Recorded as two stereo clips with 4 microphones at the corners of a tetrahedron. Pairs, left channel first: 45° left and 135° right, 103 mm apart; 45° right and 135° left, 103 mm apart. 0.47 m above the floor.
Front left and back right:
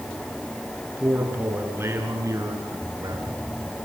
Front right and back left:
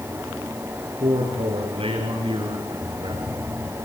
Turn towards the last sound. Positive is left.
turn(degrees=175)